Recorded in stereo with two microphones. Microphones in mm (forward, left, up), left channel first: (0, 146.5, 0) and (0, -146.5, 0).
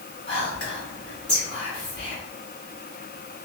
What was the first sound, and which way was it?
Whispering, 35° left (ahead or behind).